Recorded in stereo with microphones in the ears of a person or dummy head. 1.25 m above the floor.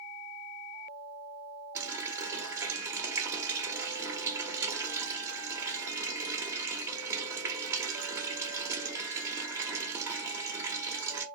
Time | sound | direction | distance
1.8 | a running tap | 15° right (ahead or behind) | 1.1 m